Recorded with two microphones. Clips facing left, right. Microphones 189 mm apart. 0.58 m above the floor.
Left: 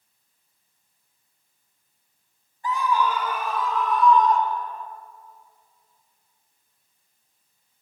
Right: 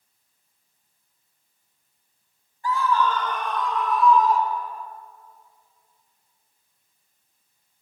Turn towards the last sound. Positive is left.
turn(degrees=-5)  # may be behind; listen again after turning